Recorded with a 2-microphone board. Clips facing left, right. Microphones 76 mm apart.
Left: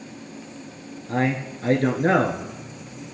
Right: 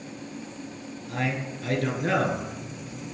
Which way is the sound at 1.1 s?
35° left (ahead or behind).